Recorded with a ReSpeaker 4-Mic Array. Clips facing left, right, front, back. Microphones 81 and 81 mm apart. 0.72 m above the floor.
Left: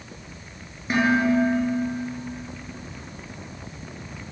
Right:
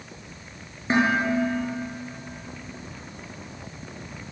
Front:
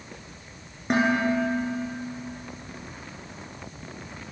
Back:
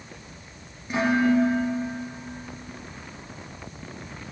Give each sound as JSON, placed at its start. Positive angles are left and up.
{"t": 0.9, "sound": "dishes clattering", "azimuth_deg": -30, "distance_m": 7.0}